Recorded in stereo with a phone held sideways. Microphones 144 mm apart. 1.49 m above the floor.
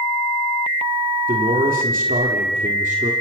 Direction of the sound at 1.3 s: 80° right.